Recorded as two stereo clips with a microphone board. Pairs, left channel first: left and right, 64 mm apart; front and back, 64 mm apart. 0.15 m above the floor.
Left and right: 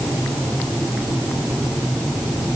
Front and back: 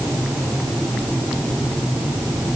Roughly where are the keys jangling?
No keys jangling in this recording.